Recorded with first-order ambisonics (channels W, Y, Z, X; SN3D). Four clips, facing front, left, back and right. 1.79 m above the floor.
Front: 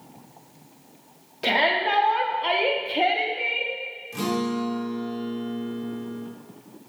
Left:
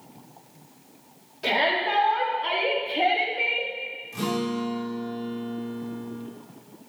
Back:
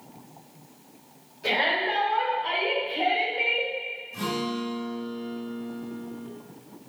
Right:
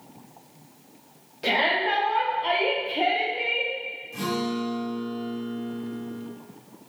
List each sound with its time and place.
1.4 s a shout: 5° right, 2 m; by 3.7 s 165° left, 0.8 m
4.1 s a guitar: 10° left, 2 m